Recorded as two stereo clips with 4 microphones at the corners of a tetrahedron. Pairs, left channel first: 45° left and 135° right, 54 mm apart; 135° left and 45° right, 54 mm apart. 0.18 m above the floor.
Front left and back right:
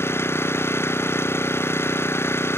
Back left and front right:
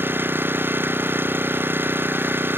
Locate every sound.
0.0 s an engine running: 5° left